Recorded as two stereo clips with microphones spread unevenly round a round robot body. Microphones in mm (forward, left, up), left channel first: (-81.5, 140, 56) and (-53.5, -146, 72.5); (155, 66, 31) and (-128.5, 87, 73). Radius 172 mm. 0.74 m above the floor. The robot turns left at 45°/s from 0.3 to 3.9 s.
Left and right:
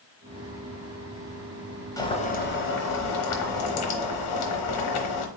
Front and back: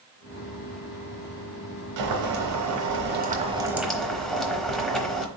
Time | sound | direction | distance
2.0 | boiling | 175° left | 1.0 m